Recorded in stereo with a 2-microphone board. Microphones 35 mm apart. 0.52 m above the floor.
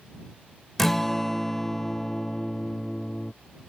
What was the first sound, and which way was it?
A guitar, 10° left (ahead or behind).